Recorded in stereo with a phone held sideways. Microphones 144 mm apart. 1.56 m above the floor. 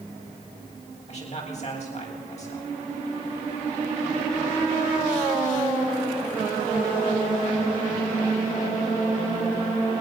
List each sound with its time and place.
1.1 s a man speaking: 50° left (ahead or behind), 8.5 m